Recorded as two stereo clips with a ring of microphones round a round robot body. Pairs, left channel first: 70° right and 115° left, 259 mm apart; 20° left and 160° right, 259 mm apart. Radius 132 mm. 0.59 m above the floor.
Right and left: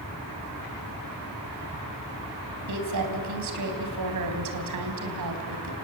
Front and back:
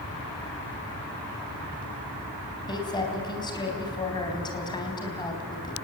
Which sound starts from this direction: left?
A woman speaking, at 2.7 s.